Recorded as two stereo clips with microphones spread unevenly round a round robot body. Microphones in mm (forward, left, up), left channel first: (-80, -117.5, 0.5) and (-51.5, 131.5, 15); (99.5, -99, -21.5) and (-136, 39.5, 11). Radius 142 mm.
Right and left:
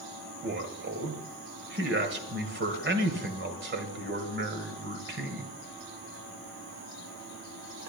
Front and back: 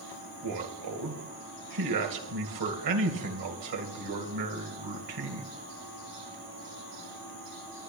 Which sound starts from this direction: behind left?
A man speaking, at 0.4 s.